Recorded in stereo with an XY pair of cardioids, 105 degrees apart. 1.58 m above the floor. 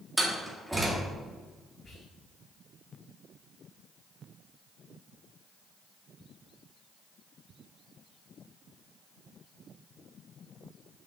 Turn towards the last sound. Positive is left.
turn(degrees=40)